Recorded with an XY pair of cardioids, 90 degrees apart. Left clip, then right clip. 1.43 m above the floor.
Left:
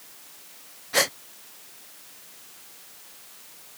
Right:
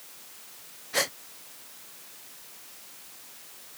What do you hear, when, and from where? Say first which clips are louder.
0.9 s a gasp: left 5 dB; 40° left